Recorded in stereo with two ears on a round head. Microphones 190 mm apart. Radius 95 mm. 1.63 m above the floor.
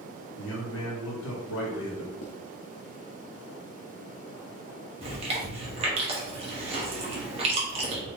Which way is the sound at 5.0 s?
30° right (ahead or behind).